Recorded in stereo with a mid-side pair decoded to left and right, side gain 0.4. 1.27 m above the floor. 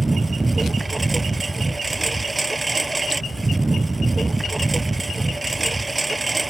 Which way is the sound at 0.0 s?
25° right.